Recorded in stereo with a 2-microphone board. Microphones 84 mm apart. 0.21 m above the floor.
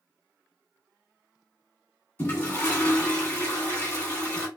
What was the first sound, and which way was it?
A toilet flushing, 20° left (ahead or behind).